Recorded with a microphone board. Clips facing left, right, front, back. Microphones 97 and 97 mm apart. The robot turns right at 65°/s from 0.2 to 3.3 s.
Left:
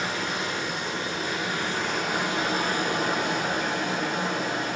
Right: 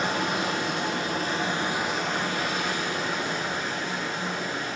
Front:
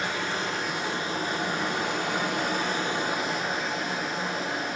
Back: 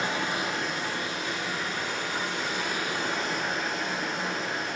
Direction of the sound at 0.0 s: 115° right.